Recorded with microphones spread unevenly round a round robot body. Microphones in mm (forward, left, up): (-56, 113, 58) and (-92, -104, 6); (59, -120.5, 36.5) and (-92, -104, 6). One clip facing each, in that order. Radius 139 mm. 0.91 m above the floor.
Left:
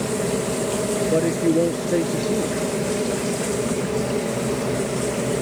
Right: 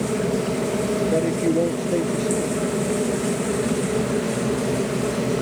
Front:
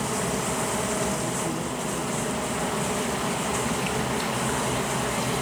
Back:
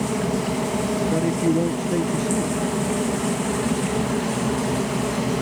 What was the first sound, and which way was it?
An aircraft, 170° right.